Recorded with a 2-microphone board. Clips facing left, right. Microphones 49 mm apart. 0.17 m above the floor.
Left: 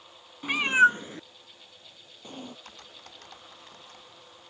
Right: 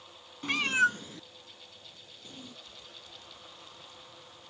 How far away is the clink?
I don't hear a clink.